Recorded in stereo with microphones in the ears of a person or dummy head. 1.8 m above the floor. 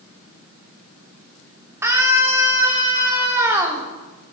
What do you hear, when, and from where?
1.8 s a scream: 15° right (ahead or behind), 3 m